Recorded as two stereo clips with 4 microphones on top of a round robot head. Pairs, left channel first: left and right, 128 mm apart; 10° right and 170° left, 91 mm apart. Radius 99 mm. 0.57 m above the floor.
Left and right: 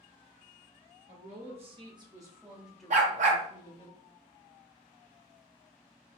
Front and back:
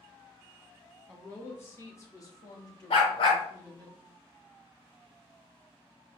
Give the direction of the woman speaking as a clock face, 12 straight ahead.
3 o'clock.